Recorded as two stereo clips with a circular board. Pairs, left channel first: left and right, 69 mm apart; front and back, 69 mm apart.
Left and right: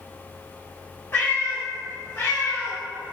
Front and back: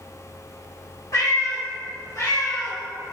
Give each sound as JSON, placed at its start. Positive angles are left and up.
{"t": 1.1, "sound": "a cat meowing", "azimuth_deg": 35, "distance_m": 1.3}